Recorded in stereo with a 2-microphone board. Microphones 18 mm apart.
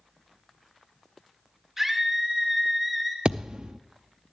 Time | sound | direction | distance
1.8 | a scream | 15° right (ahead or behind) | 2.5 m
3.2 | a thud | 80° right | 0.6 m